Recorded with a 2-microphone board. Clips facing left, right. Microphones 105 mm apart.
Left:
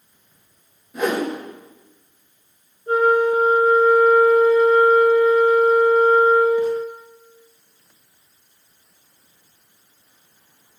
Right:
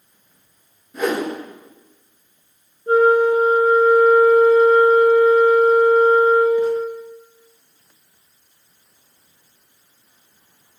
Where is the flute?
30° right (ahead or behind), 1.5 m.